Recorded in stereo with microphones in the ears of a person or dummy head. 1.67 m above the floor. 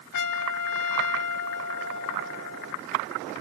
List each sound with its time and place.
0.1 s a trumpet: 60° left (ahead or behind)